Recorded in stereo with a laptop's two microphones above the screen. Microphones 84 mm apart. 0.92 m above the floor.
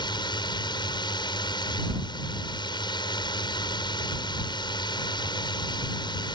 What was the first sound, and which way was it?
A drone, 60° left (ahead or behind).